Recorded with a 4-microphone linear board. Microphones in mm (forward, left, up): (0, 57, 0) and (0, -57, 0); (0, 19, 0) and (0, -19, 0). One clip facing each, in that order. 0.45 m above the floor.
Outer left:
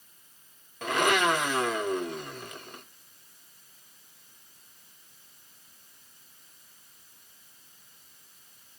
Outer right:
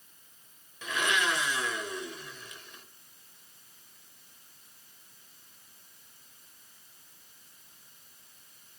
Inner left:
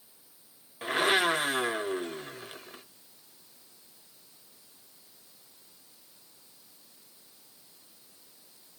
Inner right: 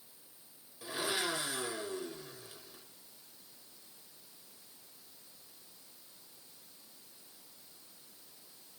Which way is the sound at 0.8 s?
55° left (ahead or behind).